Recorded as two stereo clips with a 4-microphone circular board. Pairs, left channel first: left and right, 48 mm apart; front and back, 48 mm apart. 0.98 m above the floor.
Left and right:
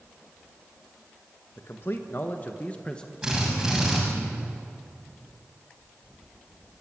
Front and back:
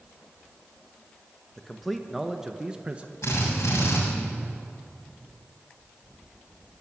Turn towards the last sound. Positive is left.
turn(degrees=-10)